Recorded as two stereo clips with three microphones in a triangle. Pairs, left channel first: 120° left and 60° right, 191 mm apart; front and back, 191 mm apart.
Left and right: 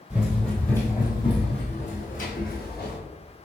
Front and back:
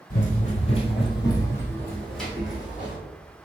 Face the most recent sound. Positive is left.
turn(degrees=100)